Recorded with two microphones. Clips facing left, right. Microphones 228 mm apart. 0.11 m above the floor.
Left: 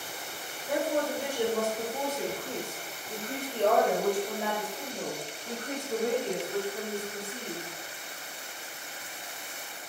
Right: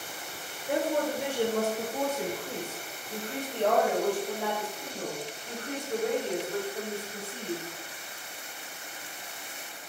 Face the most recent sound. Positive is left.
turn(degrees=50)  # may be behind; listen again after turning